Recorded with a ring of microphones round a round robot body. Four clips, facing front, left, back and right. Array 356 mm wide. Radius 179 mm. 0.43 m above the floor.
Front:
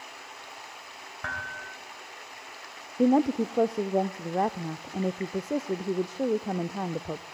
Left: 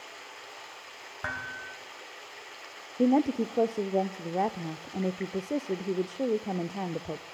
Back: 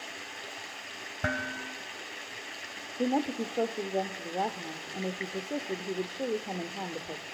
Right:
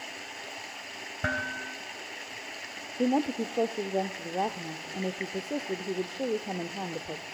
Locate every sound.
0.0 s running water: 125° right, 2.5 m
1.2 s dishes clattering: 135° right, 2 m
3.0 s a woman speaking: 25° left, 0.8 m